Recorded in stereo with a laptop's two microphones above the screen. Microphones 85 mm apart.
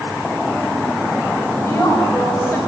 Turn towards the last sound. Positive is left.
turn(degrees=30)  # may be behind; listen again after turning